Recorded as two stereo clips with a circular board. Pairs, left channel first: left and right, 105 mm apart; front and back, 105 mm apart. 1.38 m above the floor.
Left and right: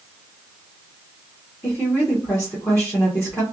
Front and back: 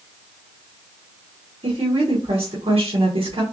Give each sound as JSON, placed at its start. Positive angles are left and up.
{"t": 1.6, "sound": "a woman speaking", "azimuth_deg": 155, "distance_m": 1.0}